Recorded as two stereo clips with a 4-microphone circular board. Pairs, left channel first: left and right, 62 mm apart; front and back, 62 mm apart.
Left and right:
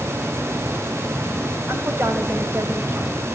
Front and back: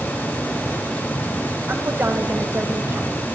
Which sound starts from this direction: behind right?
A woman speaking, at 1.7 s.